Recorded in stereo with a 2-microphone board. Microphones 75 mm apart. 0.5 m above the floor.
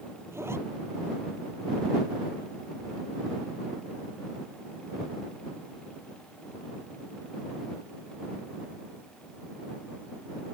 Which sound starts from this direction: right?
A zipper, at 0.3 s.